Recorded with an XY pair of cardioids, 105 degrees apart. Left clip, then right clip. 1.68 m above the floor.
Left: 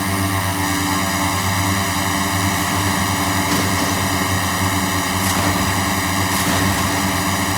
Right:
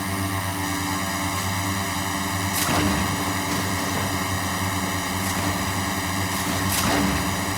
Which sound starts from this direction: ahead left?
A drone, at 0.0 s.